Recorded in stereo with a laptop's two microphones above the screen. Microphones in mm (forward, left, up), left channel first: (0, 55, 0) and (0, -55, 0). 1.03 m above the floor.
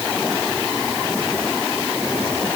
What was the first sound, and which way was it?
Only background noise.